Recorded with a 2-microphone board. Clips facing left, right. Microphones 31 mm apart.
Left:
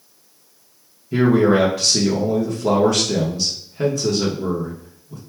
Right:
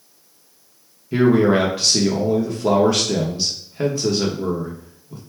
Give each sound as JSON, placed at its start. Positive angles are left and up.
{"t": 1.1, "sound": "a man speaking", "side_deg": -20, "distance_m": 0.7}